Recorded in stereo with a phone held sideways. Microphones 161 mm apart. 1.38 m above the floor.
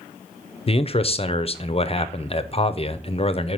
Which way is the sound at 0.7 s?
40° left (ahead or behind).